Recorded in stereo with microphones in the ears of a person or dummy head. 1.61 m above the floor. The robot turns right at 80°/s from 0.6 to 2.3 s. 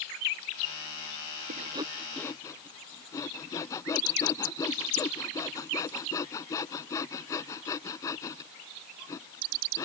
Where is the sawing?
45° right (ahead or behind); by 9.8 s 20° left (ahead or behind).